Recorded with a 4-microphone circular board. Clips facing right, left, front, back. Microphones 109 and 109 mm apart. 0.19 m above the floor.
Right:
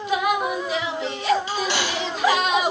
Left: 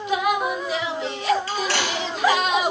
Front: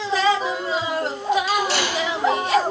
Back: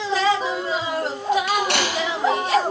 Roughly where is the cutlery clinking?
Behind.